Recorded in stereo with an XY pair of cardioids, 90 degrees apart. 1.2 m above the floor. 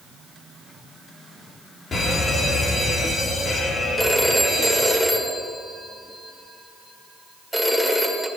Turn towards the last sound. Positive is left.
turn(degrees=0)